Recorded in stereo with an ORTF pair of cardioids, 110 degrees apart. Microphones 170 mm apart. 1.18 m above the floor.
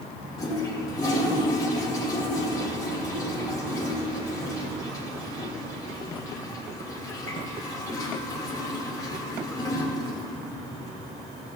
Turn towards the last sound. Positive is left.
turn(degrees=25)